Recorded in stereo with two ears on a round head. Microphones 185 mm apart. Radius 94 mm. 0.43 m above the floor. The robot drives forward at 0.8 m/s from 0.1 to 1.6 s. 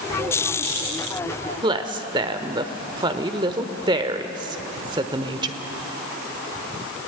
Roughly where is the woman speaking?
Right.